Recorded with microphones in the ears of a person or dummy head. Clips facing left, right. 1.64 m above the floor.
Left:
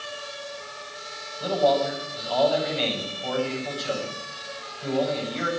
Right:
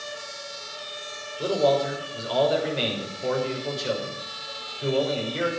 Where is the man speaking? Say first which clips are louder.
Even; 60° right (ahead or behind), 6 m.